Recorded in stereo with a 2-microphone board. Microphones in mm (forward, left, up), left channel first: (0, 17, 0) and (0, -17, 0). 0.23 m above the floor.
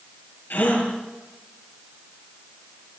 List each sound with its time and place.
0.5 s a gasp: 70° left (ahead or behind), 5.5 m